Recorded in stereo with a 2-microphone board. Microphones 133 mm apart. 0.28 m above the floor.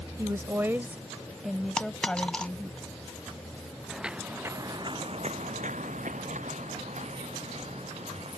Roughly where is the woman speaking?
Right.